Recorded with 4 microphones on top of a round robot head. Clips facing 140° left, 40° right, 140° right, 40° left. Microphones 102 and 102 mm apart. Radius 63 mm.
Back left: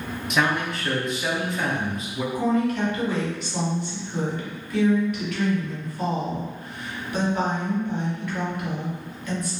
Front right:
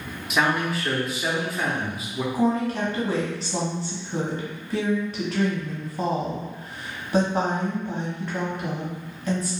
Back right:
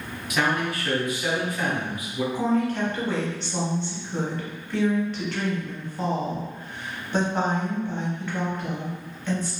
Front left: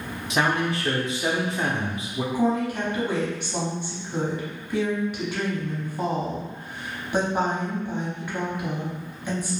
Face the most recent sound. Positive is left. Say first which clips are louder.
# back left 1 dB, front left 1 dB
turn(degrees=-25)